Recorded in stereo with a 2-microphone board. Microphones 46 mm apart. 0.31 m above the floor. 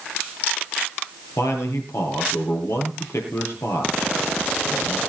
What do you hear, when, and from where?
1.4 s a man speaking: 75° left (ahead or behind), 6 m